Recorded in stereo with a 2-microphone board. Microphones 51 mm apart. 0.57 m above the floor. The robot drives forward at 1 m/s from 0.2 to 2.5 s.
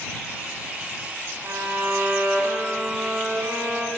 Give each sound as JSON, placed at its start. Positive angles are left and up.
{"t": 1.4, "sound": "a violin", "side_deg": -80, "distance_m": 1.6}